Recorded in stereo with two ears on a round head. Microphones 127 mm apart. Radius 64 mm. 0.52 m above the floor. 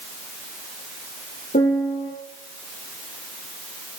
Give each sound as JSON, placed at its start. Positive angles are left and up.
{"t": 1.5, "sound": "a piano", "side_deg": 60, "distance_m": 3.5}